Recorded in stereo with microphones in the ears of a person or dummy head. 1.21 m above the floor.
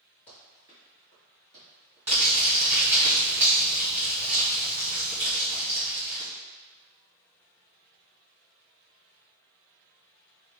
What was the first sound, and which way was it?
Running footsteps, 15° left (ahead or behind).